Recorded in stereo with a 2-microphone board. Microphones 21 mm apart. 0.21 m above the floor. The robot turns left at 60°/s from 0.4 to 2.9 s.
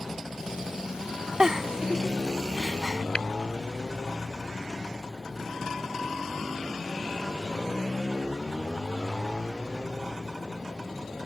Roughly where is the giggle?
Right.